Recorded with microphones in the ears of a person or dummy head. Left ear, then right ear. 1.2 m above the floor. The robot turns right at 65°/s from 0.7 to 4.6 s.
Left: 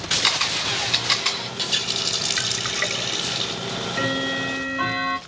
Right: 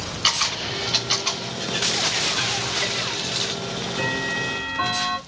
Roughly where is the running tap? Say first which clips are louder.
Right 1 dB; ahead left.